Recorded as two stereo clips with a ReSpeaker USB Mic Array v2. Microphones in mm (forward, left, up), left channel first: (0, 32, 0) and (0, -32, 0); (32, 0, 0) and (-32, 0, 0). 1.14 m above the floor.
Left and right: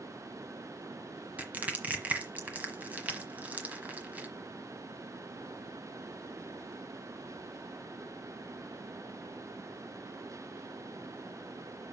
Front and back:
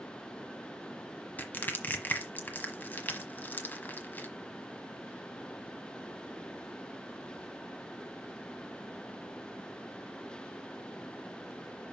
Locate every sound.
1.4 s crushing: 40° right, 1.2 m